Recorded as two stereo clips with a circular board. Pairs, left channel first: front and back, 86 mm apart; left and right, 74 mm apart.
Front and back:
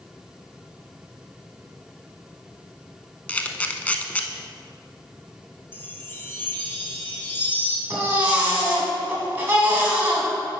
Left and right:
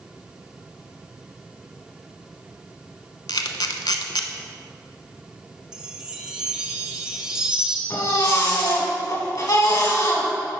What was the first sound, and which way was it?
A camera shutter, 70° left.